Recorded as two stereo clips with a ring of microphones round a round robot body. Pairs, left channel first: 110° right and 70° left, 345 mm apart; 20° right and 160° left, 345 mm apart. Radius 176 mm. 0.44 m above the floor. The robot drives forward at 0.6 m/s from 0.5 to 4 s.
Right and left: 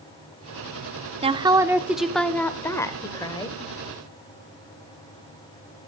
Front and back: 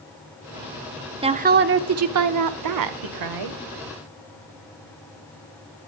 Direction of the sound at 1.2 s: 110° left.